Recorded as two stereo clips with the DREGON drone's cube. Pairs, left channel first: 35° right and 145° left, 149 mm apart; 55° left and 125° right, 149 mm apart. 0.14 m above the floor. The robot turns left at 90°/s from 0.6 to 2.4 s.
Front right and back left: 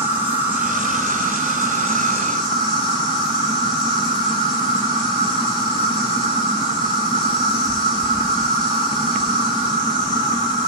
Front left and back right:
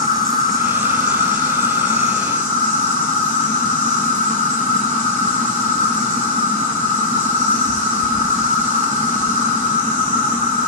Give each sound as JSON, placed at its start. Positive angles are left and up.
{"t": 0.0, "sound": "an insect", "azimuth_deg": 5, "distance_m": 2.0}